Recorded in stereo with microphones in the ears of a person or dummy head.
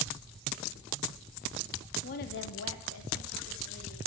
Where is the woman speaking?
40° left (ahead or behind), 0.5 m; by 4.0 s 65° left (ahead or behind), 1.5 m.